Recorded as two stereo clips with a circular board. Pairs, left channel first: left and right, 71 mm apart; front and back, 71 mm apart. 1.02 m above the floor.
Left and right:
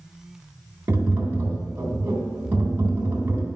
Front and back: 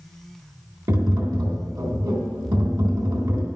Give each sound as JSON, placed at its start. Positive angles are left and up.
{"t": 0.9, "sound": "tapping", "azimuth_deg": -150, "distance_m": 3.0}